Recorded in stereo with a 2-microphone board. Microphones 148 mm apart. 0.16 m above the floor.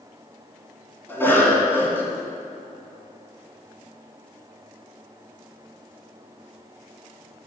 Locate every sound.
1.1 s a cough: 15° left (ahead or behind), 1.8 m